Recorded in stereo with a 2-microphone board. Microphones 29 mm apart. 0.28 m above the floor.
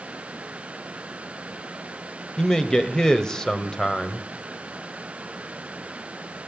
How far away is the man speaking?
About 1.0 m.